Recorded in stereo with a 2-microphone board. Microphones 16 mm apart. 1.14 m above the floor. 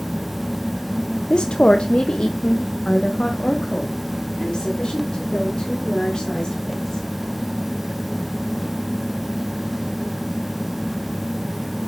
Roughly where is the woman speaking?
Left.